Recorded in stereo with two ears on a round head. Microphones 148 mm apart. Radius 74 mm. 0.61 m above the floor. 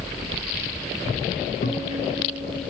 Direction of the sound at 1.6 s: 60° left (ahead or behind).